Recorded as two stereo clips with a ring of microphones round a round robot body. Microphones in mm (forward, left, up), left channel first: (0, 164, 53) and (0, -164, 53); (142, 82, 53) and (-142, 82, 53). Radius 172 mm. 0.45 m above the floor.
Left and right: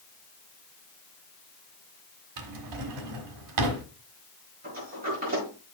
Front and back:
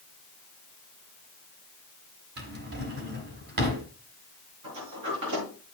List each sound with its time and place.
2.4 s a drawer: 120° right, 1.5 m
4.6 s a sliding door: 155° right, 6.5 m